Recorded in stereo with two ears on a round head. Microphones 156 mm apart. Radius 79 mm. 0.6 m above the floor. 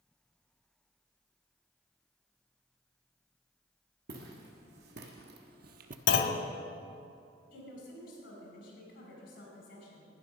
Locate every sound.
4.1 s footsteps: 70° right (ahead or behind), 2.5 m; by 6.0 s 50° right (ahead or behind), 0.8 m
6.1 s a clunk: 65° left (ahead or behind), 0.9 m
7.5 s a woman speaking: 60° left (ahead or behind), 4.5 m